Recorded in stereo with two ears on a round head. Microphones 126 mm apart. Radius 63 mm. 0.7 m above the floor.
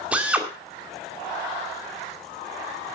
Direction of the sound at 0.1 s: 10° right (ahead or behind).